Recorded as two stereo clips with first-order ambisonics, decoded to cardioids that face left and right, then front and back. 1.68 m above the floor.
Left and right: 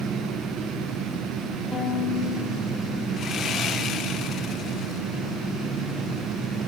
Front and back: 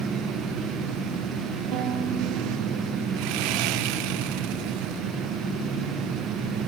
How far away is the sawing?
About 1.6 m.